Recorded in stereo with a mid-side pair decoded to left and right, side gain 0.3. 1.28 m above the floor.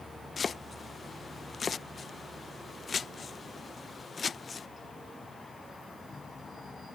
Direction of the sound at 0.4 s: 60° left.